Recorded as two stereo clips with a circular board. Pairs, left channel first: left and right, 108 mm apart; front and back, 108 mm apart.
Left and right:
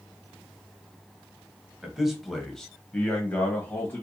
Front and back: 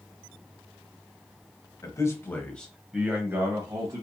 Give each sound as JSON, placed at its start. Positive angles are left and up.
{"t": 1.8, "sound": "a man speaking", "azimuth_deg": -10, "distance_m": 1.0}